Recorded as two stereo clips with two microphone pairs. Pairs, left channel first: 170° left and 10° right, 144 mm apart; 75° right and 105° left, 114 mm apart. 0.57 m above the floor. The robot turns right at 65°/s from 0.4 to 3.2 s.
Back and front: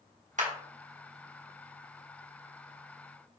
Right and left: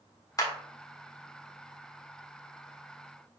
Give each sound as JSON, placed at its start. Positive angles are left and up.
{"t": 0.4, "sound": "a clap", "azimuth_deg": -25, "distance_m": 1.0}